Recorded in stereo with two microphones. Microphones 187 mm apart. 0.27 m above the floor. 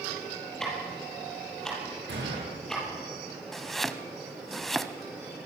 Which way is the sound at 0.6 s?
5° left (ahead or behind).